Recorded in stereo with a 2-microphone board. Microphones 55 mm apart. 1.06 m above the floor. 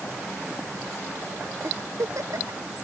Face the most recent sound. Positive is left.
turn(degrees=-85)